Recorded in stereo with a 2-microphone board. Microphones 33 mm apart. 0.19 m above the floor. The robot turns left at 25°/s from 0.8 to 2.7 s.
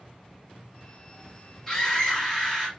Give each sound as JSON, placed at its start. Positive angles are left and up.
{"t": 1.7, "sound": "a scream", "side_deg": 5, "distance_m": 1.4}